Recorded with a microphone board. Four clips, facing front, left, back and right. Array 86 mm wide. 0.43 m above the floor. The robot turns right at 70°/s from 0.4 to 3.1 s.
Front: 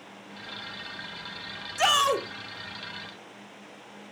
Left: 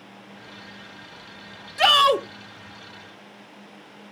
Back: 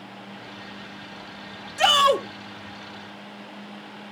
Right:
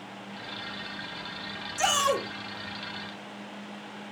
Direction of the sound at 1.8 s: 85° left.